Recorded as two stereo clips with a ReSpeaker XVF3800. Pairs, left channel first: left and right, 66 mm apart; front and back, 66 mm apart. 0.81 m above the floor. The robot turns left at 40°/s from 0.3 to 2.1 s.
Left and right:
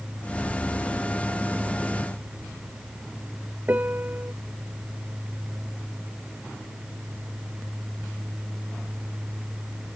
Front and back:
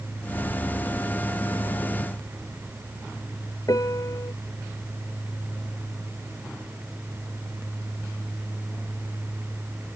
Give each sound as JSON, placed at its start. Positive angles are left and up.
{"t": 3.7, "sound": "a piano", "azimuth_deg": -25}